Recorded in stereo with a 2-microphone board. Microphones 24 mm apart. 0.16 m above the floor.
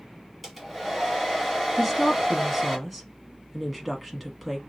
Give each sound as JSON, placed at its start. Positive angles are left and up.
{"t": 0.4, "sound": "a hair dryer", "side_deg": 0, "distance_m": 1.2}
{"t": 1.8, "sound": "a woman speaking", "side_deg": 0, "distance_m": 1.0}